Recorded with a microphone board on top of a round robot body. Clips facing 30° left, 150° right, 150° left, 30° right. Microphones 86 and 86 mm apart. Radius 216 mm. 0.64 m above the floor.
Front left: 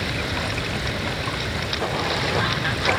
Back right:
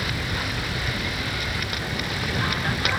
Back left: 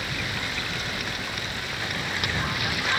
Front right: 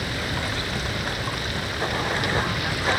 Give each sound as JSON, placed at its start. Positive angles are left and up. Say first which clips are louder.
{"t": 0.0, "sound": "running water", "louder": "front left 2 dB, front right 3 dB", "azimuth_deg": 20}